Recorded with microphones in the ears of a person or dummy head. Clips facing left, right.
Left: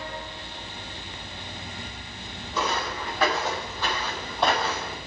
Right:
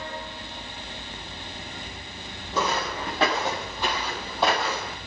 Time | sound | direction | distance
2.5 | footsteps | 35° right (ahead or behind) | 3.5 m